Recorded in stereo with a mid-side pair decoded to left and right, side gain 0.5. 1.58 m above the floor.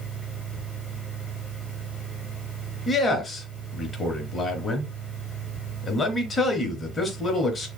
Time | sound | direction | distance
0.0 | a fan | 25° left | 1.9 m
2.9 | a man speaking | 35° left | 3 m